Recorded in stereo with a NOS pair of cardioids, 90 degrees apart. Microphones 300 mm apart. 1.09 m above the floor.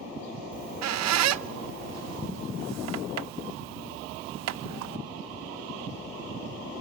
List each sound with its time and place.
0.5 s a squeak: 60° right, 0.8 m